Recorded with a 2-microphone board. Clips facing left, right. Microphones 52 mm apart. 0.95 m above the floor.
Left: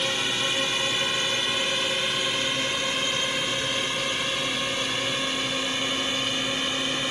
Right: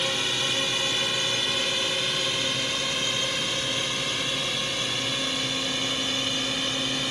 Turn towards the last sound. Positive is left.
turn(degrees=15)  # may be behind; listen again after turning